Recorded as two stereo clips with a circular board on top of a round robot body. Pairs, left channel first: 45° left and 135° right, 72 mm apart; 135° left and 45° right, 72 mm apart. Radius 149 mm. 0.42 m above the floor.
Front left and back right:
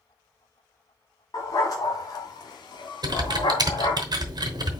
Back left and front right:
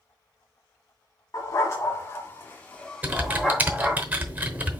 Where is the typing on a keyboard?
110° right, 1.1 m.